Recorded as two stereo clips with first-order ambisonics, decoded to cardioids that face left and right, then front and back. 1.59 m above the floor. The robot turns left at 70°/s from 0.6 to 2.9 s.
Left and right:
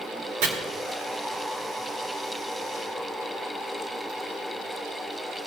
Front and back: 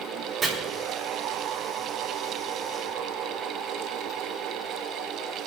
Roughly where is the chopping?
Right.